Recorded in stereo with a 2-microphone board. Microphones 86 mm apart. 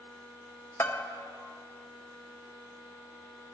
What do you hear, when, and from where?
0.8 s a bell: 30° left (ahead or behind), 0.7 m